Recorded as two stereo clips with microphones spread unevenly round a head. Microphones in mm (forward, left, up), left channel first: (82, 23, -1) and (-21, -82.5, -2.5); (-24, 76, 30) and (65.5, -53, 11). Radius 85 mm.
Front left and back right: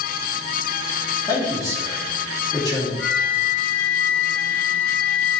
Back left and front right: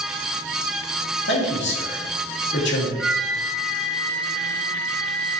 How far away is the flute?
About 1.6 m.